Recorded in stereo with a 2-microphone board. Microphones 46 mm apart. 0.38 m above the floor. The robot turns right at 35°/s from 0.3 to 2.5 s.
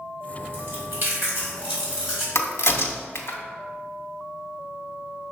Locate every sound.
0.5 s chewing: 60° right (ahead or behind), 1.7 m; by 2.2 s 10° right (ahead or behind), 1.7 m
2.4 s a crack: 75° left (ahead or behind), 0.5 m; by 3.4 s 70° left (ahead or behind), 0.5 m